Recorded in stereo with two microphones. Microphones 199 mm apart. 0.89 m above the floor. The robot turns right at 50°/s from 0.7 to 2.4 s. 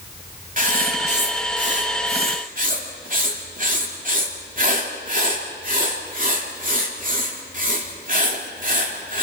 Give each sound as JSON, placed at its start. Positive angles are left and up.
{"t": 0.6, "sound": "writing", "azimuth_deg": -135, "distance_m": 2.5}